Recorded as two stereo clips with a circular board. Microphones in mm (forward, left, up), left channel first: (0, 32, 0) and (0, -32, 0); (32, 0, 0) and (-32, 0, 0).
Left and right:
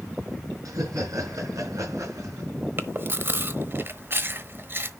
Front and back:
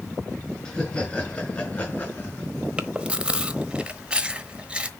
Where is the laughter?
70° right, 4.5 m; by 2.5 s 55° right, 3.5 m.